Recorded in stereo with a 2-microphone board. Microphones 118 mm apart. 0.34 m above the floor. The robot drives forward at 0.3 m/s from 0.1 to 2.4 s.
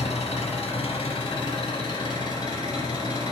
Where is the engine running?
65° left (ahead or behind), 0.7 m; by 3.3 s 40° left (ahead or behind), 1.1 m.